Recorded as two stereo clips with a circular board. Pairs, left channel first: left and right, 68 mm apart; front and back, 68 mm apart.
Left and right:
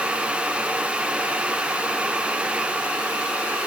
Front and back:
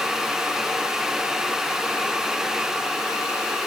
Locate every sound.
Only background noise.